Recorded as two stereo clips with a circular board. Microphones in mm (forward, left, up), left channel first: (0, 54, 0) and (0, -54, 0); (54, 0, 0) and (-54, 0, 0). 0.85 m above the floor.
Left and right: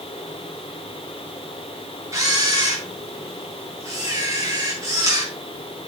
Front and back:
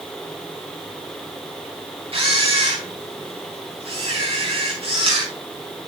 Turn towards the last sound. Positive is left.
turn(degrees=-155)